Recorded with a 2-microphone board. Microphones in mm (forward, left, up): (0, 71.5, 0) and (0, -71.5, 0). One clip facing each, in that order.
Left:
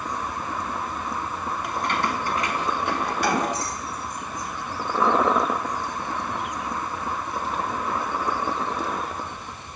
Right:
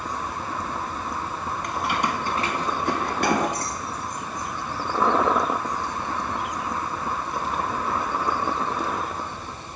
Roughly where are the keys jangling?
Centre.